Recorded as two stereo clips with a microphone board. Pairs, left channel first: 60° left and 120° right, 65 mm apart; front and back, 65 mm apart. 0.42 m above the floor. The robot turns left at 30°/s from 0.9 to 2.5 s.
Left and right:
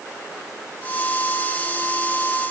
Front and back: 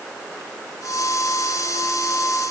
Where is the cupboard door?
No cupboard door in this recording.